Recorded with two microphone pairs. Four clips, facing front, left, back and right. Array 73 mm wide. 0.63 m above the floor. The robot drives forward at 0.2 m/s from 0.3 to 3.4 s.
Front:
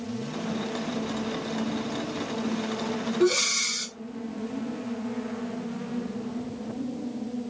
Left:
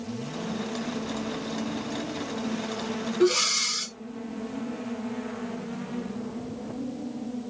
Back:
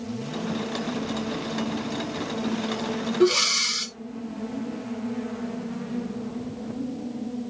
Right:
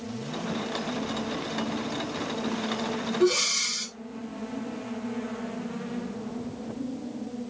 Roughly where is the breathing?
Behind.